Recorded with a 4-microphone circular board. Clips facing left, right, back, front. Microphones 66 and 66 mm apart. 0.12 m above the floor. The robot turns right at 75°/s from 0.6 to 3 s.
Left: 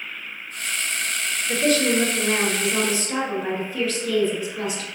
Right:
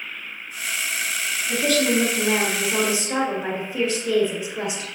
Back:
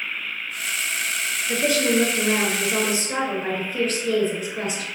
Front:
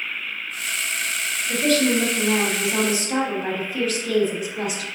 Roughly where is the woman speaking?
Left.